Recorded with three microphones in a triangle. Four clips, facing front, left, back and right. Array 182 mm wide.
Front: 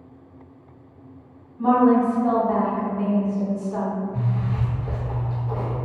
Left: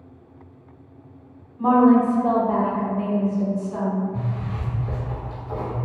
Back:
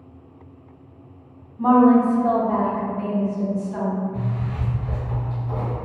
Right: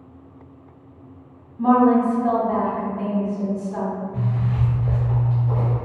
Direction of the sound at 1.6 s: 150° left.